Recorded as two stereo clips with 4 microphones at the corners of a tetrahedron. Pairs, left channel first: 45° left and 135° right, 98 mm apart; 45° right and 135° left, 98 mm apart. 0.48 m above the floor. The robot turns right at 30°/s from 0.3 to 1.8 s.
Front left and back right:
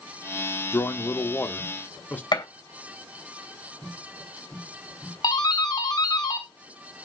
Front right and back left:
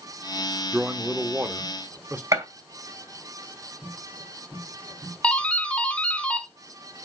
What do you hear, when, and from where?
0.7 s a man speaking: 70° left, 0.7 m; by 2.2 s 100° left, 0.7 m
2.3 s a gunshot: 80° left, 2.5 m
5.2 s a doorbell: 30° left, 1.6 m